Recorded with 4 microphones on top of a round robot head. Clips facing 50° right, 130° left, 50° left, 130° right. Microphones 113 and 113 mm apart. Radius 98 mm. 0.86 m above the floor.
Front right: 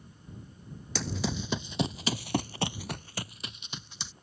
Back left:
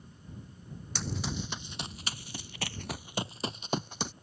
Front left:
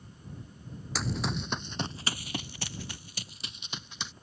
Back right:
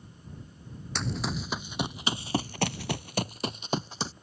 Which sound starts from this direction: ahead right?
Running footsteps, at 0.9 s.